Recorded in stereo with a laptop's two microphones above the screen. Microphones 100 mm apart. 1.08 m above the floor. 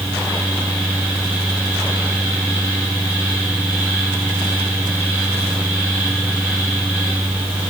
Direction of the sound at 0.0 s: 20° right (ahead or behind).